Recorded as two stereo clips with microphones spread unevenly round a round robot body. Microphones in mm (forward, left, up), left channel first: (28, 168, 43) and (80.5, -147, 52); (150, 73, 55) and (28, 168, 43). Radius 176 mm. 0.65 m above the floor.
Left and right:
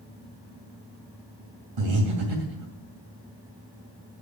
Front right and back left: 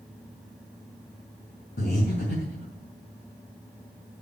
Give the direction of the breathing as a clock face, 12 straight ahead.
2 o'clock.